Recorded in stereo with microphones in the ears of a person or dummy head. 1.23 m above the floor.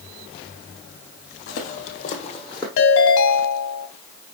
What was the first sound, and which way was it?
Footsteps, 45° left (ahead or behind).